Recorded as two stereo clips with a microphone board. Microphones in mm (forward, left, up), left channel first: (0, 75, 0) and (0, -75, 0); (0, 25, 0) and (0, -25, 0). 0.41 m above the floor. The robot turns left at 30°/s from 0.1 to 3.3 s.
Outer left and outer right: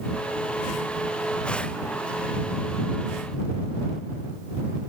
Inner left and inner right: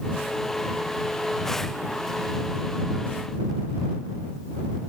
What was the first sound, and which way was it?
Only background noise.